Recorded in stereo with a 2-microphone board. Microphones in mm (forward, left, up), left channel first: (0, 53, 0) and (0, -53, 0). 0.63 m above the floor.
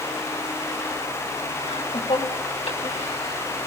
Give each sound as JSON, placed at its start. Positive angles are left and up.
{"t": 1.6, "sound": "laughter", "side_deg": 75, "distance_m": 4.5}